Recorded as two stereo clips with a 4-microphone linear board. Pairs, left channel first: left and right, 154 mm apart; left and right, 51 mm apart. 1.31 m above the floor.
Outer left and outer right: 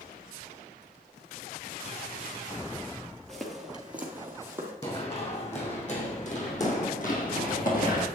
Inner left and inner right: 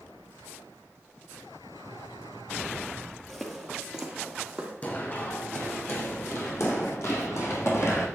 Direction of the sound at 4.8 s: 35° left (ahead or behind).